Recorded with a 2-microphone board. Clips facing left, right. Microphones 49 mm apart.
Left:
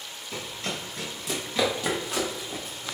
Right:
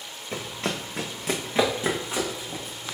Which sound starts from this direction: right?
Running footsteps, at 0.3 s.